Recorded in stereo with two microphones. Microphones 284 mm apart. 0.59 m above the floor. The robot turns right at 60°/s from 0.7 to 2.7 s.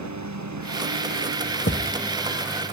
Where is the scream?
I don't hear a scream.